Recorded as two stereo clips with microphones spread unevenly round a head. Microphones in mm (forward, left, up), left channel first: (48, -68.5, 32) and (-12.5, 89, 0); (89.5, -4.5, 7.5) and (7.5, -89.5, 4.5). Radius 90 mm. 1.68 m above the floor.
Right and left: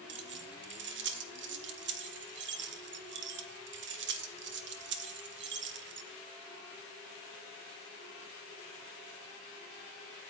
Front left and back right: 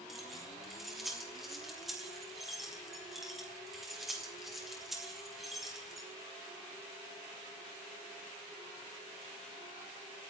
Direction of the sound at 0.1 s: 135° left.